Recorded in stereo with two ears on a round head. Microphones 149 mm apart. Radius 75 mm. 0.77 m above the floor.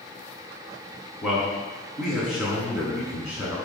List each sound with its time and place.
1.2 s a man speaking: centre (ahead or behind), 5.5 m; by 3.6 s 5° right (ahead or behind), 7 m